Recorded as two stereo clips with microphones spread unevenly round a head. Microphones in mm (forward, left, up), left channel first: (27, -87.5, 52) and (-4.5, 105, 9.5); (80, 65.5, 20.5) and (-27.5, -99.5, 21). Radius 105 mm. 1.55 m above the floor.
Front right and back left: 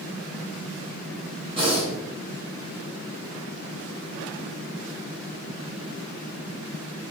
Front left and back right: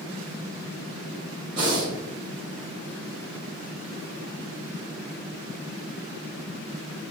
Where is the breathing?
170° left, 0.9 m.